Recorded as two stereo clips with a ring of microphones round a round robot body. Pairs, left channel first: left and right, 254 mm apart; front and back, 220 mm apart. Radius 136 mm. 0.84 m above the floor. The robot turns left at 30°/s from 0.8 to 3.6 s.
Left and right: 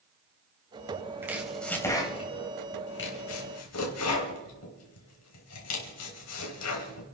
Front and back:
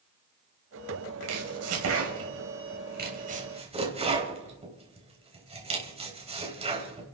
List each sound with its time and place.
1.2 s chopping: 170° right, 3.5 m; by 7.0 s 115° left, 3.5 m